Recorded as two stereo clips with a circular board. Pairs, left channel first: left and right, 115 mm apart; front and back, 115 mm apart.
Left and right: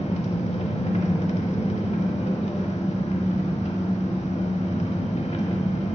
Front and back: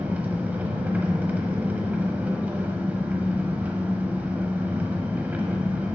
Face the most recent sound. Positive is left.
turn(degrees=105)